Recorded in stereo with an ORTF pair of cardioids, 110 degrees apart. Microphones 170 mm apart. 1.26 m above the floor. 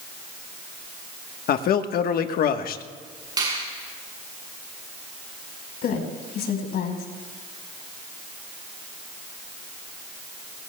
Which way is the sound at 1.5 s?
60° left.